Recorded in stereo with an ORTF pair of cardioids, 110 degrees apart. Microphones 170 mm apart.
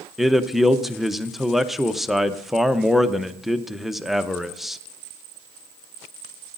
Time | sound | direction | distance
0.2 | a man speaking | straight ahead | 0.6 m